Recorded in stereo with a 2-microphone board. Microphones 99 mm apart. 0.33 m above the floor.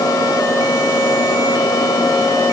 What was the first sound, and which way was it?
Only background noise.